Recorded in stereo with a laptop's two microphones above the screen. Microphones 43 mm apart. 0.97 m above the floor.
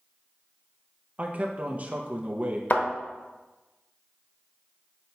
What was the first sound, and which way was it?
A man speaking, 35° right (ahead or behind).